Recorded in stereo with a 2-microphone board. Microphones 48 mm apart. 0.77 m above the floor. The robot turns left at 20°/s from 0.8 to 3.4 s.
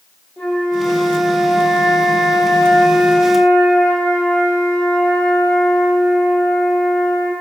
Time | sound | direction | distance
0.4 | a flute | 120° left | 1.0 m